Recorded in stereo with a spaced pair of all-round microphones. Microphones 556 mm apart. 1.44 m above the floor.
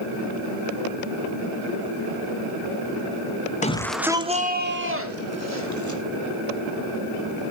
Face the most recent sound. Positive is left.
turn(degrees=-30)  # may be behind; listen again after turning